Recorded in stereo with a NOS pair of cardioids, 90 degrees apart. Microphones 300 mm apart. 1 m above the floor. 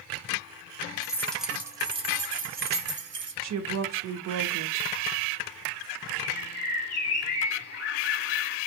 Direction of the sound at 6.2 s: 50° left.